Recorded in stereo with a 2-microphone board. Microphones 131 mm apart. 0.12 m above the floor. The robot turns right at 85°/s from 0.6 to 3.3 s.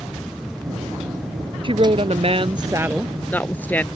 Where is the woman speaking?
125° right; by 3.9 s 15° left.